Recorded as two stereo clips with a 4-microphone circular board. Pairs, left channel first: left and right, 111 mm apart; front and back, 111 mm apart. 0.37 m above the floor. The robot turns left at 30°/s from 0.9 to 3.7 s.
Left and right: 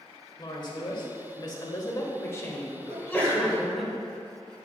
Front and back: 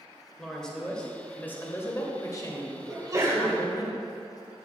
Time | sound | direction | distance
0.4 | a woman speaking | 80° left | 1.1 m
2.9 | a sneeze | 160° left | 1.6 m